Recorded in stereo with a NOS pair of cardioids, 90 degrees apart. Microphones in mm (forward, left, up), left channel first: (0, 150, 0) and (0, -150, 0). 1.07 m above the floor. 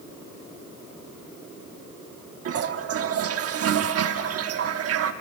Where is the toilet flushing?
55° right, 1.2 m.